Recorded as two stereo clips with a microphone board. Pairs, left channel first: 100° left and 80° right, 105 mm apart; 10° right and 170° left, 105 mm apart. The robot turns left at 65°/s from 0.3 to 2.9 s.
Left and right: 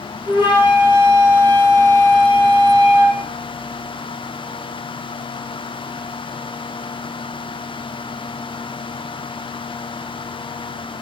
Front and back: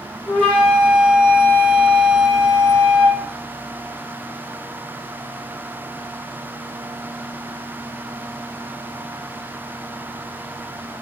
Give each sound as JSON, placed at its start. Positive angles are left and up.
{"t": 0.3, "sound": "a flute", "azimuth_deg": -65, "distance_m": 1.3}